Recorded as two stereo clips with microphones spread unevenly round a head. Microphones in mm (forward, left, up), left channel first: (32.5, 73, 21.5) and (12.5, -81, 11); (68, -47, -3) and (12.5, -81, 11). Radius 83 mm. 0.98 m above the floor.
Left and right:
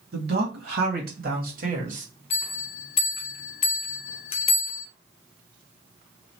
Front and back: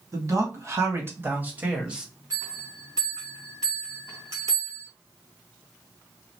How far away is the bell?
About 0.7 m.